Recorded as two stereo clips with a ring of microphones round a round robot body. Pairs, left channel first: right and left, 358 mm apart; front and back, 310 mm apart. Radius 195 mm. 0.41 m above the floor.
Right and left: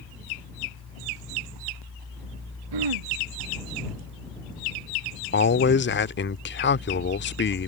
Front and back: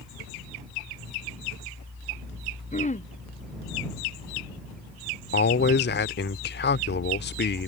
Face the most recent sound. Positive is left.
turn(degrees=-45)